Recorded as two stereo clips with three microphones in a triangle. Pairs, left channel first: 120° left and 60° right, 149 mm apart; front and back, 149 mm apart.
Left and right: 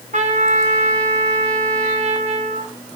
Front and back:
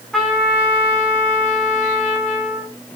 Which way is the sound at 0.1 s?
85° right.